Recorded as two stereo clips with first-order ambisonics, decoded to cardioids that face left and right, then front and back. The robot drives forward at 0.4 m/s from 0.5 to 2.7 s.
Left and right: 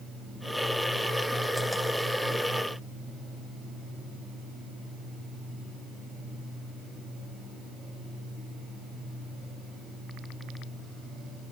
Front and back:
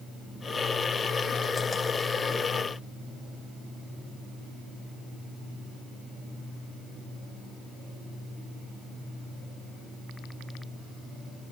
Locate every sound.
Only background noise.